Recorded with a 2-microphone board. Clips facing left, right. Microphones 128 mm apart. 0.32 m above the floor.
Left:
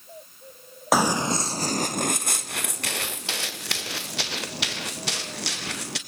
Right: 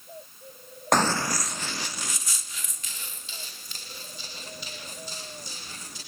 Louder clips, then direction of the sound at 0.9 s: Left 2 dB; 5° left (ahead or behind).